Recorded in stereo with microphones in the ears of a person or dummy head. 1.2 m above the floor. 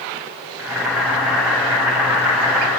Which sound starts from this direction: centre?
Boiling, at 0.6 s.